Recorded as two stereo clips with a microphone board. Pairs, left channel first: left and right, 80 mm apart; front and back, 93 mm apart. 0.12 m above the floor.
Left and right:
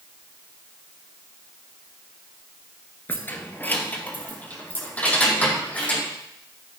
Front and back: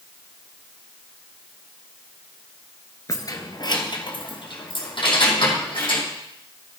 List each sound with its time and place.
3.1 s keys jangling: 35° left, 1.2 m; by 6.0 s 20° left, 4.5 m